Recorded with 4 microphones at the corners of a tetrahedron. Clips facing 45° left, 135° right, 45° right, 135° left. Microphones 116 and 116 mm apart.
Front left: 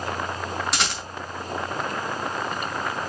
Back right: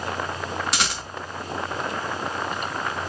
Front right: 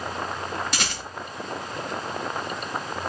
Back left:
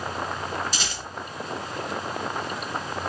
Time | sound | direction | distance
0.7 | a rattle | 45° right | 3.5 m